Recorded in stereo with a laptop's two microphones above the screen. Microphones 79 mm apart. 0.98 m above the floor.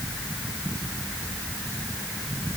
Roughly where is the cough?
No cough in this recording.